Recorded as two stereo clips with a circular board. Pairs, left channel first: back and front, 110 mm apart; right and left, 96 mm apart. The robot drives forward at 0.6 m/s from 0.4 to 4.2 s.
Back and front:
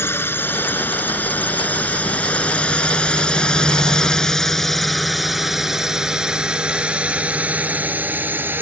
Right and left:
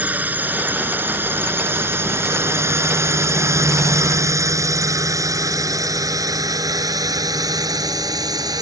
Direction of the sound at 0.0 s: 140° left.